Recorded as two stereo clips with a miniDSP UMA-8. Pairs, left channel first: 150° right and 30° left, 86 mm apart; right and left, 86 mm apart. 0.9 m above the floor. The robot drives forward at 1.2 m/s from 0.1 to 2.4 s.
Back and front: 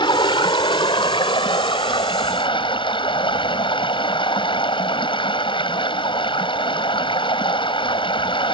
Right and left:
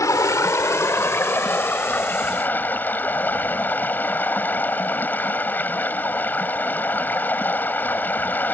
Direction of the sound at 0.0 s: 140° right.